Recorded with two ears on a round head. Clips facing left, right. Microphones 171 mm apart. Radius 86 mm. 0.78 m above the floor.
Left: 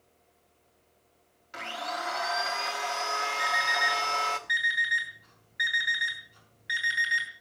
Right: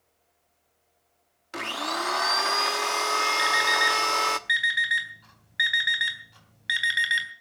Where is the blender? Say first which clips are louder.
Right 4 dB; 70° right (ahead or behind), 1.1 m.